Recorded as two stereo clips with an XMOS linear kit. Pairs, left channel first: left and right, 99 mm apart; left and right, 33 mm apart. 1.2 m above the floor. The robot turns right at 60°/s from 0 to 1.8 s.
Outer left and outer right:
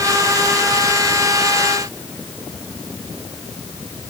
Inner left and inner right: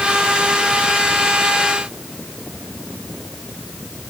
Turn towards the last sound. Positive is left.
No sound to turn to.